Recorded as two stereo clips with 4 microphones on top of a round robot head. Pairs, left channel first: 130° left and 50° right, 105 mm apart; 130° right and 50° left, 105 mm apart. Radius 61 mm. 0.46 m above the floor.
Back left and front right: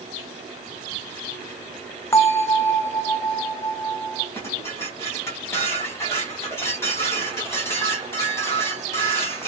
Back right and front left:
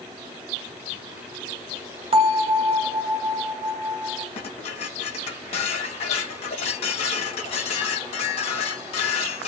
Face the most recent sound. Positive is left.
turn(degrees=-160)